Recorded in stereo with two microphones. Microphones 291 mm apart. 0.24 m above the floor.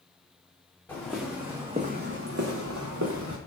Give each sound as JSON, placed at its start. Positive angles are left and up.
{"t": 0.9, "sound": "footsteps", "side_deg": 5, "distance_m": 0.9}